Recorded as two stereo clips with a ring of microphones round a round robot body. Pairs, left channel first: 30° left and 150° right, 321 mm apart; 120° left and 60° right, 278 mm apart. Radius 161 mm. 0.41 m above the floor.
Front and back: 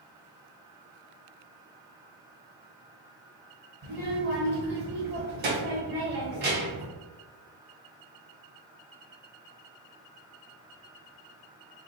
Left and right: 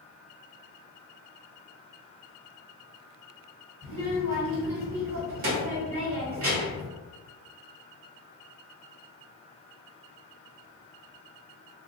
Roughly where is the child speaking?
Right.